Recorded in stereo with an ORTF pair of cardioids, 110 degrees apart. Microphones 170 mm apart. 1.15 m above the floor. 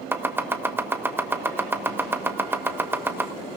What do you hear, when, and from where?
0.1 s chopping: 15° right, 1.4 m